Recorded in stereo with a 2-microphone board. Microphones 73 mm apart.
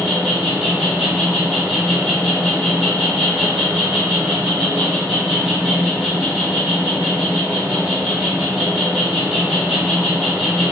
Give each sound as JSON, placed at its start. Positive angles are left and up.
{"t": 0.0, "sound": "an insect", "side_deg": -5, "distance_m": 1.1}